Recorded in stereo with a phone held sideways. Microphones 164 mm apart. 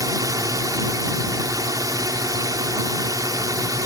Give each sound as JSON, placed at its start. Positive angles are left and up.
{"t": 0.0, "sound": "a drone", "side_deg": -20}